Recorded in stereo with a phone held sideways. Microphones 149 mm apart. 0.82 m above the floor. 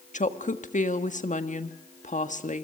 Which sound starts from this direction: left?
A woman speaking, at 0.1 s.